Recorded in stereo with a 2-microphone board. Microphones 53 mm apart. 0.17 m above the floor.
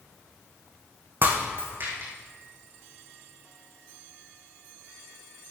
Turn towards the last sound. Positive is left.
turn(degrees=-40)  # may be behind; listen again after turning